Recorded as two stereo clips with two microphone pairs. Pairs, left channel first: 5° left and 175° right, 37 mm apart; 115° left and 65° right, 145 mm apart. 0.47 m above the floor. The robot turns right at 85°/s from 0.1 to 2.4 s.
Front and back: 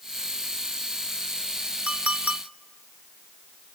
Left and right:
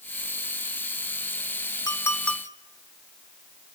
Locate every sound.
1.9 s a clink: 160° left, 0.8 m; by 2.4 s 155° right, 0.8 m